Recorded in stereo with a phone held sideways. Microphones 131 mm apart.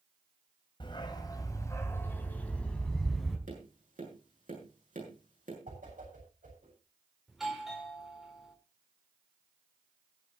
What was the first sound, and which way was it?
A dog barking, 40° left (ahead or behind).